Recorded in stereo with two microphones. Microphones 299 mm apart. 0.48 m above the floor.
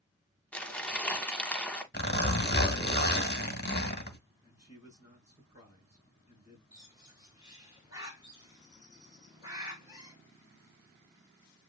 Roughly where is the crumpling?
Centre.